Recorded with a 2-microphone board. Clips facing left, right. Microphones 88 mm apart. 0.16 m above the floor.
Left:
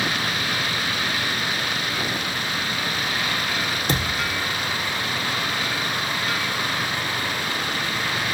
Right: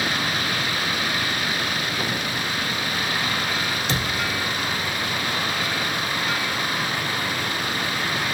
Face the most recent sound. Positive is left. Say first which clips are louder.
# even
turn(degrees=50)  # may be behind; listen again after turning